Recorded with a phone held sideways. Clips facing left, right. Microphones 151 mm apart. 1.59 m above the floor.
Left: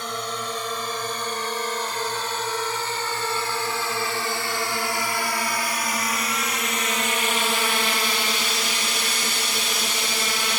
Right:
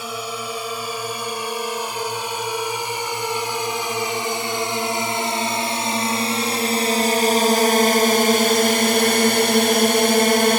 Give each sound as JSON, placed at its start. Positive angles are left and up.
{"t": 0.0, "sound": "a drone", "side_deg": -10}